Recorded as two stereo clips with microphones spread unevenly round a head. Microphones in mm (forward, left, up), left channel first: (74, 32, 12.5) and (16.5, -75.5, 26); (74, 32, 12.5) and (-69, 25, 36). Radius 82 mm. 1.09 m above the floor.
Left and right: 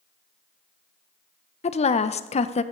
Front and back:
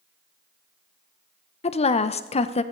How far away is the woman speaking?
About 0.7 m.